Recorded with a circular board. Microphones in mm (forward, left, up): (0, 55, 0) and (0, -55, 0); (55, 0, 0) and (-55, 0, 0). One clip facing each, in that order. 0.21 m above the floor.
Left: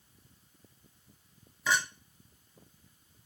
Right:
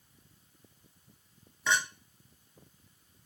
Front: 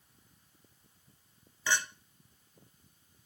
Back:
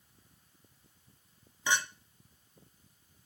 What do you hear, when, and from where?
1.7 s a clink: 175° left, 0.5 m